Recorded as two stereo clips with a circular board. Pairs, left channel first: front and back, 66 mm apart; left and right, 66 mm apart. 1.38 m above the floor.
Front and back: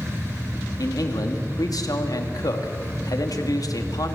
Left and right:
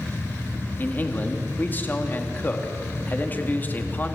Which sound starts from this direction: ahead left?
A man speaking, at 0.8 s.